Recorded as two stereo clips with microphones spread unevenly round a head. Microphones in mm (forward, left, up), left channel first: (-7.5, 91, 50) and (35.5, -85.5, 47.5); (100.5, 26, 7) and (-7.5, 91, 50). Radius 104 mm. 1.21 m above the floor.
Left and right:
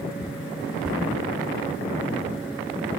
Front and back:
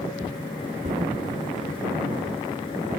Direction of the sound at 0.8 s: 165° right.